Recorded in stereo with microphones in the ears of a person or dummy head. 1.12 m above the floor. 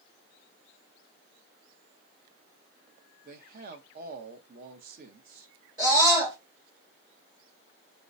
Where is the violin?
No violin in this recording.